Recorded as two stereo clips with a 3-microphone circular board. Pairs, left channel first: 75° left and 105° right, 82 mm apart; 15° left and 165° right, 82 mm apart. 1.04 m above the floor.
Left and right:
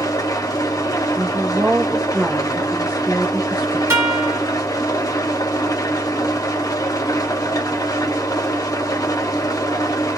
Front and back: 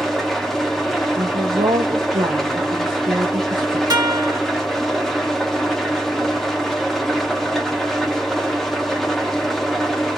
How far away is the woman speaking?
About 0.6 m.